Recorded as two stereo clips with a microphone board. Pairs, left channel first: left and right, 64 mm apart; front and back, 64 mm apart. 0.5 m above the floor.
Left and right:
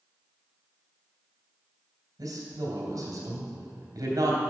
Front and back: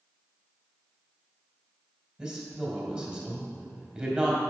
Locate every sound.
2.2 s a woman speaking: 105° right, 2.5 m